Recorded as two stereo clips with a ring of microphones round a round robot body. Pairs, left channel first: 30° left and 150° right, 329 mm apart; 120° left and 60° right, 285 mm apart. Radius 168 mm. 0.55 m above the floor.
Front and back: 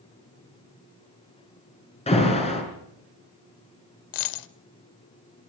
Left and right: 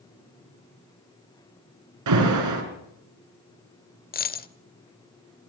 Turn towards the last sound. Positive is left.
turn(degrees=60)